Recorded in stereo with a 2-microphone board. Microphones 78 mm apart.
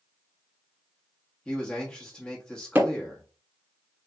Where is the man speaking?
15° left (ahead or behind), 1.2 m.